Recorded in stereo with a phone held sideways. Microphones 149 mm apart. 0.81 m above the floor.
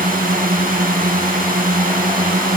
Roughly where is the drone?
Right.